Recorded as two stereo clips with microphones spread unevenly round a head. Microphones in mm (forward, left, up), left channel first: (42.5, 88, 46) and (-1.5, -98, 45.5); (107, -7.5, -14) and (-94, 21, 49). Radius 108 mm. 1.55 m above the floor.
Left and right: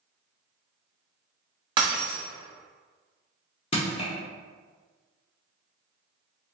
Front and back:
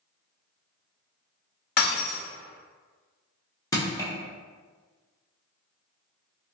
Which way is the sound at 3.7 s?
85° left.